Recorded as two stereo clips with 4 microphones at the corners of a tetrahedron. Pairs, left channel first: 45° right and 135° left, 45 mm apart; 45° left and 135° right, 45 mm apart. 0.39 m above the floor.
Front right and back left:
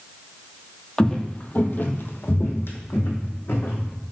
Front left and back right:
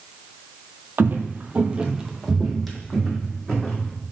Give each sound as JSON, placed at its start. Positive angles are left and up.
{"t": 1.0, "sound": "footsteps", "azimuth_deg": -115, "distance_m": 0.7}